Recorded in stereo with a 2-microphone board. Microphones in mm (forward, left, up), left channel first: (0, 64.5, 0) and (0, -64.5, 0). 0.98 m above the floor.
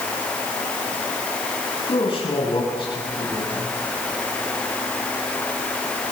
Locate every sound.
1.9 s a man speaking: 40° left (ahead or behind), 9 m